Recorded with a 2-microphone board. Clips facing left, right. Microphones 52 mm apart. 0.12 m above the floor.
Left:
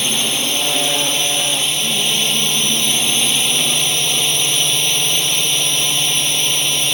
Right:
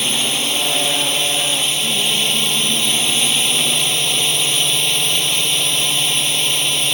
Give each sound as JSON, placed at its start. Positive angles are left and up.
{"t": 0.0, "sound": "a drone", "side_deg": -5}